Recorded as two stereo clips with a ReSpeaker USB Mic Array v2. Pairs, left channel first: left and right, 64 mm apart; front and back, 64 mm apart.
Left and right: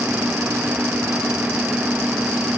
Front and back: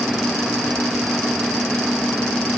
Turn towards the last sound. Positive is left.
No sound to turn to.